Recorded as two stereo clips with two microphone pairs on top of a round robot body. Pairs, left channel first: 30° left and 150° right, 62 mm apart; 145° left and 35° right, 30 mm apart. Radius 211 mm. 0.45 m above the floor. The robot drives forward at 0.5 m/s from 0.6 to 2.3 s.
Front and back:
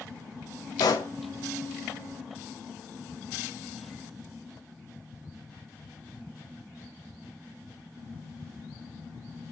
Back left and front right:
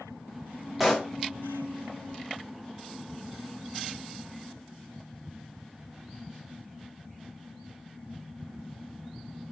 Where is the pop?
50° left, 0.6 m; by 1.1 s 60° left, 0.5 m.